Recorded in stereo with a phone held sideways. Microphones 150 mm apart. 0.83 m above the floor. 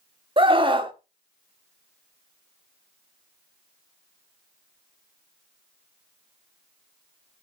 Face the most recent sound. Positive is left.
turn(degrees=-35)  # may be behind; listen again after turning